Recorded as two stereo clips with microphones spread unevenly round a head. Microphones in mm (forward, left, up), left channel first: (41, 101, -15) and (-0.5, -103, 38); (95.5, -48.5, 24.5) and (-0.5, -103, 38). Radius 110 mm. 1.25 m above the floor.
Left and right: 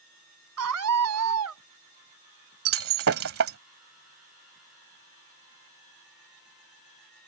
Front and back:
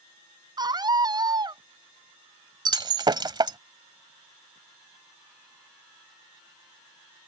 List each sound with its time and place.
0.6 s a scream: 100° right
2.6 s breaking glass: 105° right